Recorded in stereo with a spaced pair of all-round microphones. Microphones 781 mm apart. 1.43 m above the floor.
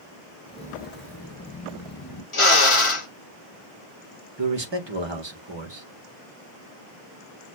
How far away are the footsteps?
About 1.5 m.